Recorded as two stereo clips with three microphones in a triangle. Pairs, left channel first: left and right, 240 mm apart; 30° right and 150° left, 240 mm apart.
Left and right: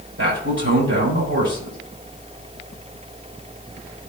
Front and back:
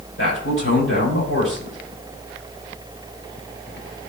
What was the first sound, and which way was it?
A man speaking, 55° right.